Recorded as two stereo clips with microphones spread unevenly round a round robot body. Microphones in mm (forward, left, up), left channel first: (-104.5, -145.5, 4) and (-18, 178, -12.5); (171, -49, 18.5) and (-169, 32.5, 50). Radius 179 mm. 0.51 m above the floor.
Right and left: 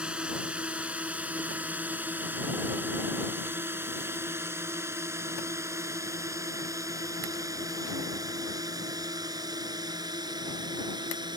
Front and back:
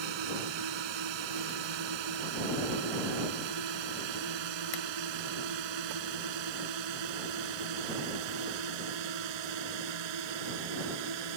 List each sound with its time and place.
0.0 s a drone: 160° left; by 11.4 s 150° left